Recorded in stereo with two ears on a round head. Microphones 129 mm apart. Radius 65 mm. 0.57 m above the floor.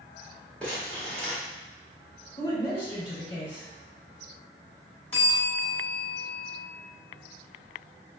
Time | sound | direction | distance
0.6 | crumpling | 10° left (ahead or behind) | 1.2 m
2.4 | a woman speaking | 35° left (ahead or behind) | 1.3 m
5.1 | a bell | 15° left (ahead or behind) | 1.2 m